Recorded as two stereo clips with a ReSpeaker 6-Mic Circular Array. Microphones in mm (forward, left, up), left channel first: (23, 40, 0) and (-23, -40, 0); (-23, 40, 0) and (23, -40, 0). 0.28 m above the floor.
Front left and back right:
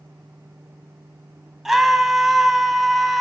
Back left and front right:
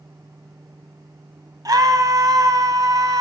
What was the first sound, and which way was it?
A scream, 35° right.